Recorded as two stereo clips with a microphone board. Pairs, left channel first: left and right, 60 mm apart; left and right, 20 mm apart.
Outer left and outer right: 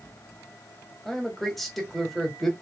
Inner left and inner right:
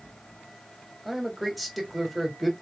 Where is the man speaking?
5° left (ahead or behind), 1.8 m.